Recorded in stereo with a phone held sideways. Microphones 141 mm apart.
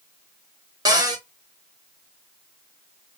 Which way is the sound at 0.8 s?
30° right (ahead or behind).